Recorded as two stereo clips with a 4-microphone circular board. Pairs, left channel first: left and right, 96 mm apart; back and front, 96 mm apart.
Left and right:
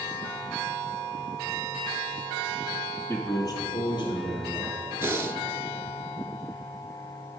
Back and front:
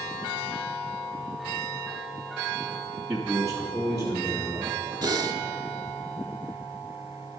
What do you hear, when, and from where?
3.1 s a man speaking: 90° left, 1.1 m
5.0 s breathing: 35° right, 0.5 m